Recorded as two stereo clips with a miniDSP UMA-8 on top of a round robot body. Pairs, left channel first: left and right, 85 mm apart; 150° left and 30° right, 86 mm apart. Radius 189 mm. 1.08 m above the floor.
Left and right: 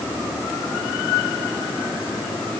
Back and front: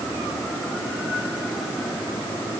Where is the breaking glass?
No breaking glass in this recording.